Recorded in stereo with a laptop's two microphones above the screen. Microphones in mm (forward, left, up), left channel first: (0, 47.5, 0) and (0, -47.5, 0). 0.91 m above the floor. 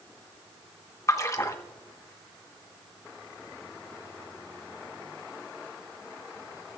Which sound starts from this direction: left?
A splash, at 1.1 s.